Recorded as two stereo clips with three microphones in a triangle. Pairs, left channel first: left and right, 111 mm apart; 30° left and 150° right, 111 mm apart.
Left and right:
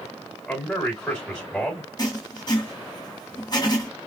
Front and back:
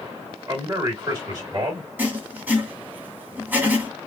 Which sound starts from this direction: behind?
A man speaking, at 0.5 s.